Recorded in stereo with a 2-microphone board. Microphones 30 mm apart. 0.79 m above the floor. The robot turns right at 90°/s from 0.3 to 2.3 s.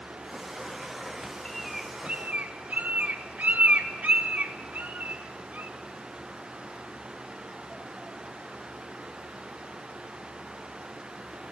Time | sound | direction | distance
1.4 | a bird | 15° left (ahead or behind) | 1.2 m